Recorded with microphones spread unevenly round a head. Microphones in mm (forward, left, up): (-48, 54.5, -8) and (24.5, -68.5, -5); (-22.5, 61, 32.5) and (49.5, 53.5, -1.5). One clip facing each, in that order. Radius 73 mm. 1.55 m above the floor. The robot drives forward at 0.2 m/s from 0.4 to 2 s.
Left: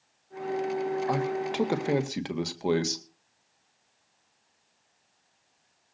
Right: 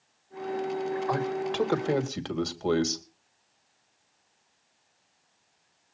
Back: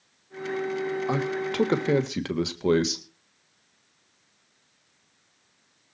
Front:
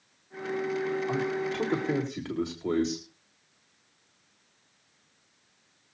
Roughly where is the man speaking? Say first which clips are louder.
Even, back 2 dB; behind.